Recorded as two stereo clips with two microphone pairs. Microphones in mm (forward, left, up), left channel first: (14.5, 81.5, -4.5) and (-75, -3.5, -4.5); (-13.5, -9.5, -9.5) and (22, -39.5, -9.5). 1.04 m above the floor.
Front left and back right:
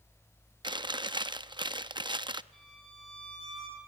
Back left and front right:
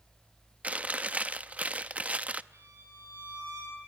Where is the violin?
45° right, 9.5 m.